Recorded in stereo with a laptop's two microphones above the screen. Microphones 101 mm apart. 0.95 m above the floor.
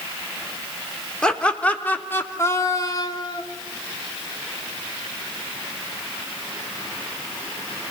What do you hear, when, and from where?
1.2 s laughter: 10° left (ahead or behind), 3.5 m; by 3.4 s 50° left (ahead or behind), 2.5 m